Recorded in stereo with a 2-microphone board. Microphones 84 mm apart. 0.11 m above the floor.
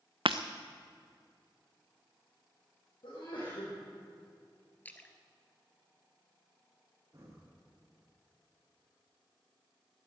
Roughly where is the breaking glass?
Right.